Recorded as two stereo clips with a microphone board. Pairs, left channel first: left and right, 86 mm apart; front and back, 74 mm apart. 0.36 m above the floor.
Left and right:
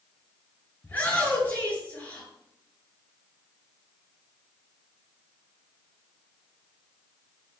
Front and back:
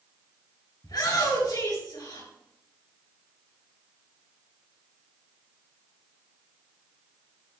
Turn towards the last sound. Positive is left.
turn(degrees=20)